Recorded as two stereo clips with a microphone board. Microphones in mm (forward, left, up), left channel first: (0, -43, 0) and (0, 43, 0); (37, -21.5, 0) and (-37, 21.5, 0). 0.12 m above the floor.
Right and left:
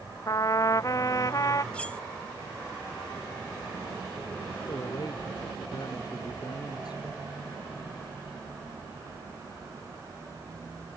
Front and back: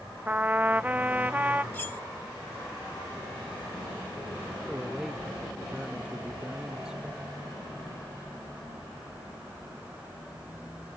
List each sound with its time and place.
0.3 s a trumpet: 140° right
1.7 s cutlery clinking: 40° right
4.7 s a man speaking: 130° right